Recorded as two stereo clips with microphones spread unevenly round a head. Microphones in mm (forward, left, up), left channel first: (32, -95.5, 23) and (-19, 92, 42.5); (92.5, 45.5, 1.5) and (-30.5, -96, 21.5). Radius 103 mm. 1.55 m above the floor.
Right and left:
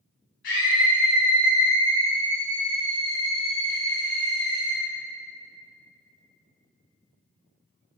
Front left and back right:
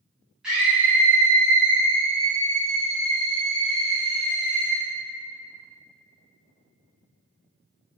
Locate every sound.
0.4 s a scream: 45° right, 3 m; by 4.8 s 95° right, 3.5 m